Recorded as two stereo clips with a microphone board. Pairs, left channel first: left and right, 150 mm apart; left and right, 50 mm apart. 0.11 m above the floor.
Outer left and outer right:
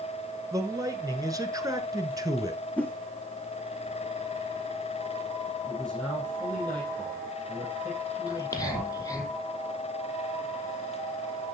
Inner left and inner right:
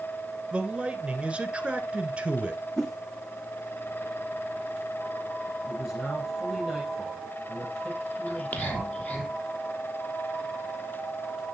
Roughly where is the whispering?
Left.